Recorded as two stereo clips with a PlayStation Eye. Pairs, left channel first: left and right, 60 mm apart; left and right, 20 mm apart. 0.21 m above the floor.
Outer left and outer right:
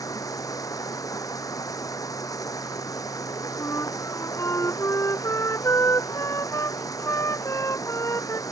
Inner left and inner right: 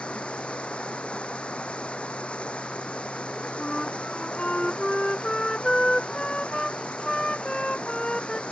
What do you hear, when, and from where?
0.0 s running water: 85° left
3.6 s a flute: 60° left (ahead or behind)